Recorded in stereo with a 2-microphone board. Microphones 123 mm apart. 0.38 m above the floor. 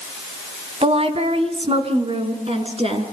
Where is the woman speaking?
50° right (ahead or behind), 2.5 m; by 3.0 s 45° right (ahead or behind), 5 m.